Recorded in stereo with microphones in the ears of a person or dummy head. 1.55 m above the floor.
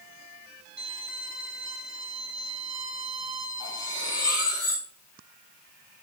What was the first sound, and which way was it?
A violin, 60° right (ahead or behind).